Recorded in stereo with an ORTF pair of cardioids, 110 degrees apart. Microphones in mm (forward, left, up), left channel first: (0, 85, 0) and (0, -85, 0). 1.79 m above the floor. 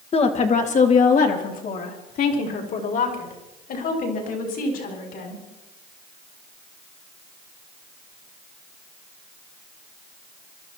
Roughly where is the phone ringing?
I don't hear a phone ringing.